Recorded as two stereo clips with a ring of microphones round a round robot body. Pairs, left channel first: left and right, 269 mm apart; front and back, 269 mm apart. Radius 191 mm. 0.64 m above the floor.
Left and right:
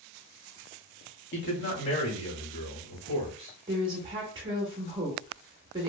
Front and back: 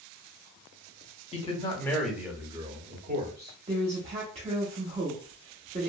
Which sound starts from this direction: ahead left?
A man speaking, at 1.3 s.